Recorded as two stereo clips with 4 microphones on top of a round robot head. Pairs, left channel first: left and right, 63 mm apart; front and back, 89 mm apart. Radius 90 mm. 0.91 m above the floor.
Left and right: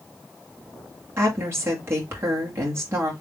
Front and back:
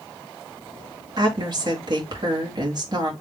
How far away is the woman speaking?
About 1.9 m.